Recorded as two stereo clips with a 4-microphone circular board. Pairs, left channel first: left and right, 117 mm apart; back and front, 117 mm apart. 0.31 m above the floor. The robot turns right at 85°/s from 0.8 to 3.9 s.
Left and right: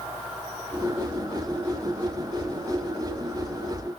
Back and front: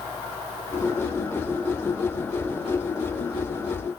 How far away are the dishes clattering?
I don't hear dishes clattering.